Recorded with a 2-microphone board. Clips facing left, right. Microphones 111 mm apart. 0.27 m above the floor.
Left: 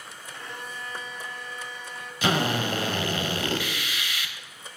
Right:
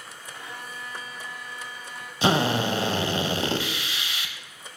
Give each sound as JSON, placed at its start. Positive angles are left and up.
{"t": 0.3, "sound": "a violin", "side_deg": -5, "distance_m": 0.7}
{"t": 2.2, "sound": "a drill", "side_deg": -25, "distance_m": 0.6}